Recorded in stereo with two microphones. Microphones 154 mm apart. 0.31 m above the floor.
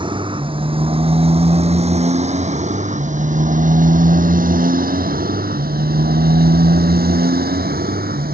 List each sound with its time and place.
0.0 s a motorcycle: 30° right (ahead or behind); by 8.3 s 80° right